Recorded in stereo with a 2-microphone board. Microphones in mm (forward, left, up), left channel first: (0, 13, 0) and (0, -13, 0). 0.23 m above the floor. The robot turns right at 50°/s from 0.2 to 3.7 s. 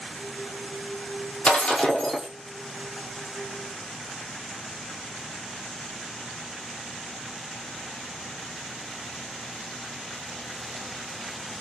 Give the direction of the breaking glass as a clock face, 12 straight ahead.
8 o'clock.